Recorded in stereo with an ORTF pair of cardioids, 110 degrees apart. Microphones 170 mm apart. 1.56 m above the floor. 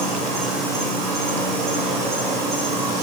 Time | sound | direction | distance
0.0 | an insect | 70° right | 5.5 m